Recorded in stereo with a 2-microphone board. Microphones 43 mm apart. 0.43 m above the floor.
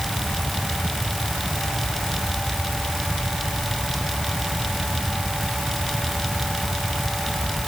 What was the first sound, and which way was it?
Only background noise.